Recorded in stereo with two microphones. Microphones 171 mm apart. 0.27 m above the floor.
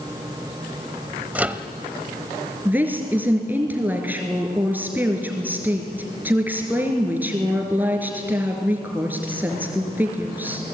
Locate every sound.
1.4 s a microwave: 10° right (ahead or behind), 0.9 m
2.6 s a woman speaking: 10° right (ahead or behind), 3.5 m